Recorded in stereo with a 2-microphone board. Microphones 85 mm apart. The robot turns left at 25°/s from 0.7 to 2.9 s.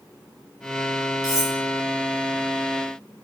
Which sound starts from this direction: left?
Cutlery clinking, at 1.2 s.